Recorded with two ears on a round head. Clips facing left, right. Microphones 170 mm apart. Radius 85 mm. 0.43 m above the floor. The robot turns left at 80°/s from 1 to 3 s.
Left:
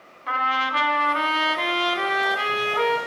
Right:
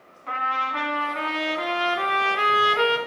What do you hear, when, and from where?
0.3 s a trumpet: 115° left, 0.9 m; by 3.0 s 40° right, 0.9 m